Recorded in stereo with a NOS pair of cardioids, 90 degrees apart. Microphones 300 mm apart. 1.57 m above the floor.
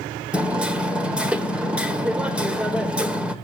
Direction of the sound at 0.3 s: 5° right.